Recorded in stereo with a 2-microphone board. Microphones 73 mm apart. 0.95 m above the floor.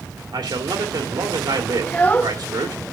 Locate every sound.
0.3 s a man speaking: 75° right (ahead or behind), 2.0 m
1.8 s a child speaking: 25° left (ahead or behind), 1.0 m